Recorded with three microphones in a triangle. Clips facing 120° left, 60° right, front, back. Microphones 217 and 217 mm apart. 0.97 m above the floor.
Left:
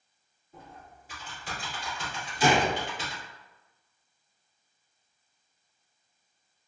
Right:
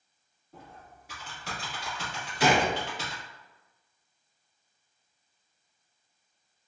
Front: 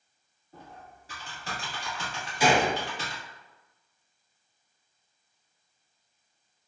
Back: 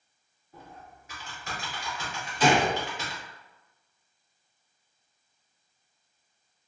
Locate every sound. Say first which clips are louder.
0.5 s typing on a keyboard: left 1 dB, even; 55° right, 1.4 m
2.4 s a gunshot: even, back 1 dB; 80° right, 0.7 m